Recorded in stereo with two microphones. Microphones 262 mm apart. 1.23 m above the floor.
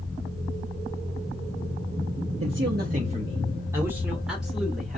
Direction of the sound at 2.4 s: 55° right (ahead or behind).